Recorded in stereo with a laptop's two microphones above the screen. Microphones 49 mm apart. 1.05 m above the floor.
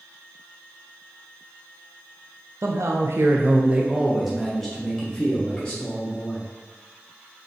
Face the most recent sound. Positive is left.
turn(degrees=20)  # may be behind; listen again after turning